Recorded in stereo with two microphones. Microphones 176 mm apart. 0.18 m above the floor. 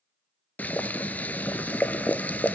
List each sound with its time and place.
0.6 s boiling: 10° left (ahead or behind), 0.5 m